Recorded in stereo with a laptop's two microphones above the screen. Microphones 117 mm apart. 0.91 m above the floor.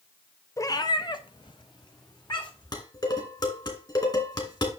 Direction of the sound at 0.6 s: 30° left (ahead or behind).